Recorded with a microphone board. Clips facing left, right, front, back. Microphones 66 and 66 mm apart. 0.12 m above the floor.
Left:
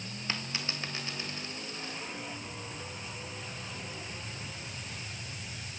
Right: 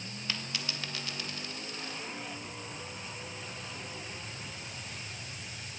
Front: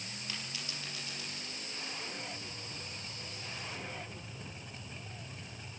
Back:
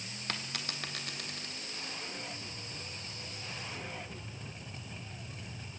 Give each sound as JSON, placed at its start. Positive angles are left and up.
{"t": 0.3, "sound": "a dropped coin", "azimuth_deg": 150, "distance_m": 3.5}